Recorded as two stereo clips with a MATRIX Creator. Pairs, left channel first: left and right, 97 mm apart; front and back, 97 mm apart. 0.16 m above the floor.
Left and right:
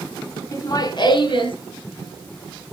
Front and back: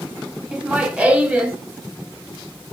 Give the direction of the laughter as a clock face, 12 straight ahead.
9 o'clock.